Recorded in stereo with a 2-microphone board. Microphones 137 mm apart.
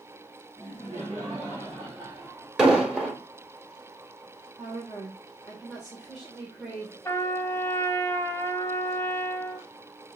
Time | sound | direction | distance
0.6 | laughter | 25° right (ahead or behind) | 2.5 m
2.6 | an explosion | 5° right (ahead or behind) | 1.1 m
4.6 | a woman speaking | 5° right (ahead or behind) | 1.6 m
7.0 | a trumpet | 20° left (ahead or behind) | 0.8 m